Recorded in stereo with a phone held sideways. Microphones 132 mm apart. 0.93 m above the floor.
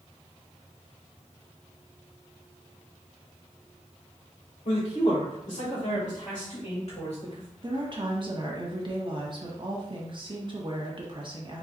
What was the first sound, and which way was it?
A man speaking, 65° left (ahead or behind).